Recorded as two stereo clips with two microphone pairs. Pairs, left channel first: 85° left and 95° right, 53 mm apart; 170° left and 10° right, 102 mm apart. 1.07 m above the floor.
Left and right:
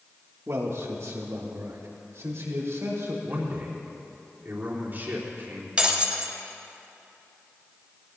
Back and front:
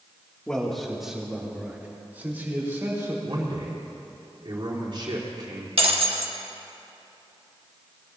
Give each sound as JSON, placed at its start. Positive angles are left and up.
{"t": 0.5, "sound": "a man speaking", "azimuth_deg": -110, "distance_m": 1.8}
{"t": 3.2, "sound": "a man speaking", "azimuth_deg": -45, "distance_m": 3.0}
{"t": 5.8, "sound": "breaking glass", "azimuth_deg": -25, "distance_m": 1.3}